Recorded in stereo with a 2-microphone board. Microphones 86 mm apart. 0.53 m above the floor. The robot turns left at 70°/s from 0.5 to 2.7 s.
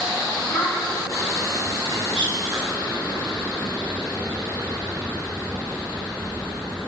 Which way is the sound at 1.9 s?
80° right.